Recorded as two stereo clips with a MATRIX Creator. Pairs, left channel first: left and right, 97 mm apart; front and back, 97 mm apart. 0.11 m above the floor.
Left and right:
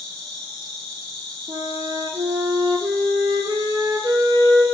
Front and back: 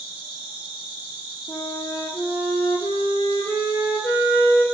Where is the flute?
60° right, 0.6 m.